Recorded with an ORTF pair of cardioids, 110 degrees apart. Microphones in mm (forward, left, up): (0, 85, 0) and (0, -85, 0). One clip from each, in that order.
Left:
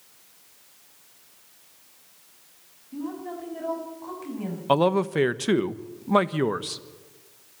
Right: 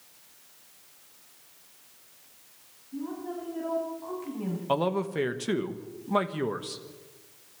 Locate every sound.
2.9 s a woman speaking: 30° left, 7.5 m; by 4.6 s 25° left, 6 m
4.7 s a man speaking: 30° left, 1.1 m